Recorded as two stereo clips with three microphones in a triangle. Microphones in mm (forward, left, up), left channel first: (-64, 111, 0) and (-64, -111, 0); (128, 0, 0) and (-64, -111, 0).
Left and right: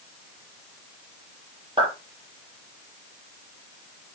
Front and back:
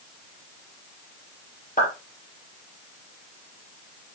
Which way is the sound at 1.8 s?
25° right.